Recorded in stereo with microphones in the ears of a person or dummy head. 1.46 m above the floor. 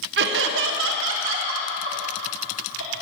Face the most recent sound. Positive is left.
turn(degrees=-75)  # may be behind; listen again after turning